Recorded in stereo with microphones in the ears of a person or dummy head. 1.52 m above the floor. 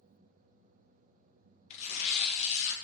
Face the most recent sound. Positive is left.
turn(degrees=35)  # may be behind; listen again after turning